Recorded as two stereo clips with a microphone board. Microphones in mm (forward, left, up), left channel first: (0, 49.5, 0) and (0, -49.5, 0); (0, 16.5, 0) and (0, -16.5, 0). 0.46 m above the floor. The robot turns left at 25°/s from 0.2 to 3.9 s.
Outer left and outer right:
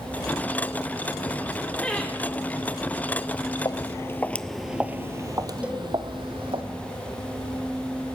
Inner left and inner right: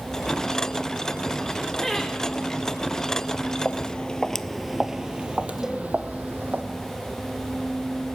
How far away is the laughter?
About 1.3 m.